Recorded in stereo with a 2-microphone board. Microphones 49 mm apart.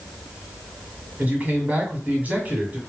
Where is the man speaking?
30° right (ahead or behind), 1.3 m.